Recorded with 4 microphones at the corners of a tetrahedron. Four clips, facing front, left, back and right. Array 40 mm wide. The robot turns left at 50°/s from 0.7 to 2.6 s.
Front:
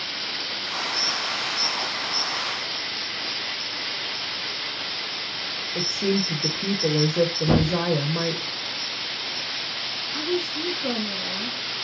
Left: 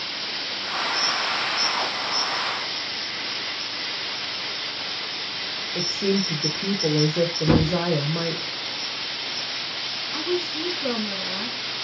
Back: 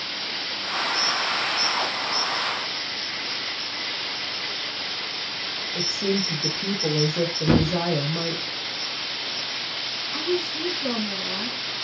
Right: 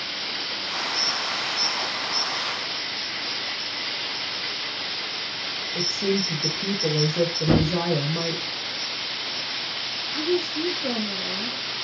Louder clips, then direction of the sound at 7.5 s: Left 2 dB, back 5 dB; 130° left.